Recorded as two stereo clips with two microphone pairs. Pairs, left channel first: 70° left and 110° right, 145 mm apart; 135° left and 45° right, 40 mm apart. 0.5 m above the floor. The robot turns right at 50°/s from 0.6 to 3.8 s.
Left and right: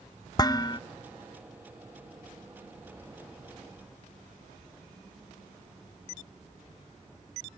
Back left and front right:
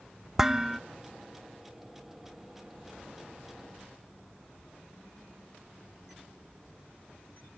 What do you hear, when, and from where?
0.4 s dishes clattering: 30° left, 0.7 m; by 0.8 s 40° left, 0.7 m